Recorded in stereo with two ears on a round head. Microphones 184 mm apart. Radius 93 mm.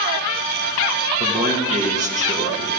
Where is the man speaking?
40° right (ahead or behind), 1.7 m.